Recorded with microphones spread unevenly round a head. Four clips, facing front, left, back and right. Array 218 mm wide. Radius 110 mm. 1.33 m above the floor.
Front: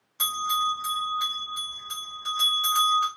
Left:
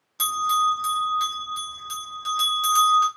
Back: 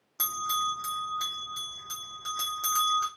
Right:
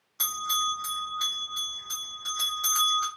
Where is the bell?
155° left, 0.8 m.